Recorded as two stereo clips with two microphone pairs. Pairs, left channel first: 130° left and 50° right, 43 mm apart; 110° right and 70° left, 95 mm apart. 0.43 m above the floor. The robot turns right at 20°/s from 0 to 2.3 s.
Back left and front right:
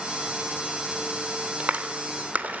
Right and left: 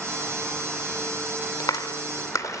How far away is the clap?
About 0.7 m.